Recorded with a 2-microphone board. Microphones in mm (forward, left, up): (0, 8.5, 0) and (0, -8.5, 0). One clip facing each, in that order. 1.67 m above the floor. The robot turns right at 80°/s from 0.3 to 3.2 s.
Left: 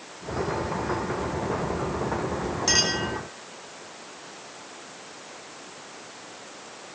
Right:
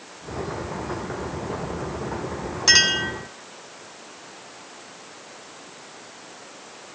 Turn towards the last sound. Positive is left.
turn(degrees=-115)